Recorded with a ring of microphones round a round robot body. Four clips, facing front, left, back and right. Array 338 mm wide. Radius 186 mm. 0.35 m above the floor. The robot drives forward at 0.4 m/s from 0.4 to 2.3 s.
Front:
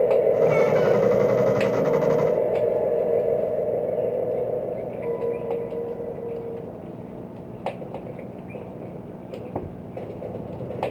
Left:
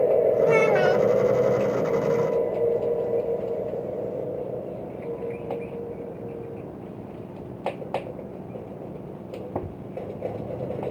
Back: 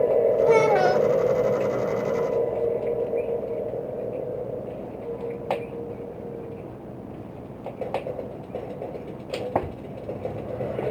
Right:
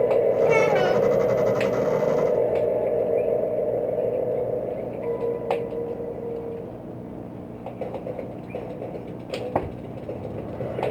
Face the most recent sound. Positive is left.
turn(degrees=165)